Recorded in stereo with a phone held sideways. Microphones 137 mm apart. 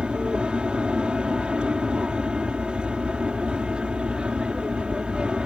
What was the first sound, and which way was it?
An aircraft, 5° right (ahead or behind).